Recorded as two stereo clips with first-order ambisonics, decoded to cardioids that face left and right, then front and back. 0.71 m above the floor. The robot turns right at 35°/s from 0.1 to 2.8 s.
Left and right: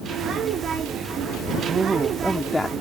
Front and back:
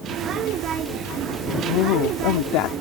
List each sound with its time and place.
1.6 s a woman speaking: 25° right; by 2.7 s 15° left